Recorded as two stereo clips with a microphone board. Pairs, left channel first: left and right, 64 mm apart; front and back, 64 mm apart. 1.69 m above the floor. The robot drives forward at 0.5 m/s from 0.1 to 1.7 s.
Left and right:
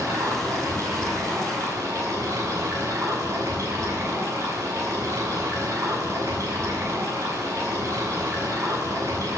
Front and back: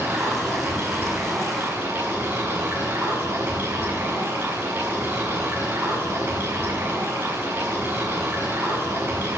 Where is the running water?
120° right, 6.5 m; by 9.4 s 125° right, 6.5 m.